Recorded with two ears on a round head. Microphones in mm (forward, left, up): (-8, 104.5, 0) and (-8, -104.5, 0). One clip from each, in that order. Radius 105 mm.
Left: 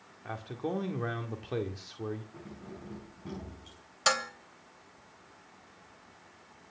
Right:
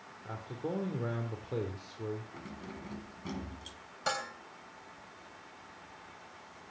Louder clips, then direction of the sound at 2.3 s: Right 2 dB; 65° right (ahead or behind).